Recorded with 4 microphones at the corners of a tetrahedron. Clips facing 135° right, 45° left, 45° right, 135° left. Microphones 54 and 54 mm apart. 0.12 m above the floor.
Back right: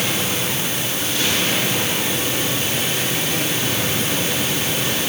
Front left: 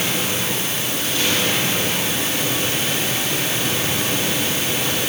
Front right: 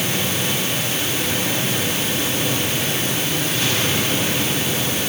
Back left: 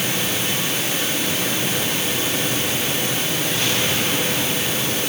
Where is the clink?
No clink in this recording.